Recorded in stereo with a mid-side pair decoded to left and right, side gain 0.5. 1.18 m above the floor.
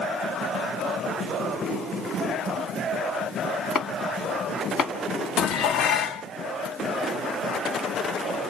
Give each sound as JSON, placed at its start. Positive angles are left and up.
{"t": 3.8, "sound": "chopping", "azimuth_deg": 60, "distance_m": 1.8}
{"t": 5.4, "sound": "dishes clattering", "azimuth_deg": 60, "distance_m": 0.7}